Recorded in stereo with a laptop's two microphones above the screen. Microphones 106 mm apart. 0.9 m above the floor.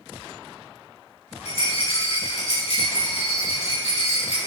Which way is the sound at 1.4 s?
70° left (ahead or behind).